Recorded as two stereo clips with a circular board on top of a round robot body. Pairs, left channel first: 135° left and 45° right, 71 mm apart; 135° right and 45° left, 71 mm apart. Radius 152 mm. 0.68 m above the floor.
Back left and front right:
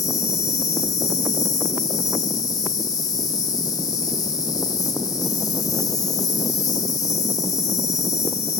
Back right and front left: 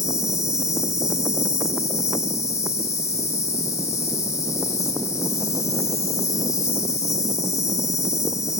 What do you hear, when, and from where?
0.0 s an insect: 175° left, 0.7 m